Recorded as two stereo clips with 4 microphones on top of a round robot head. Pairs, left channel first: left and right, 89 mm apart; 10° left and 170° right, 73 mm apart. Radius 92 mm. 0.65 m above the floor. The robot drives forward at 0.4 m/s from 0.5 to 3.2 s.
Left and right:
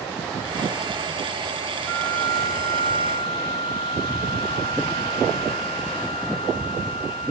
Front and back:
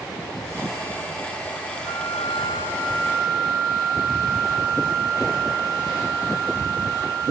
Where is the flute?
100° left, 3.5 m; by 7.3 s 105° left, 4 m.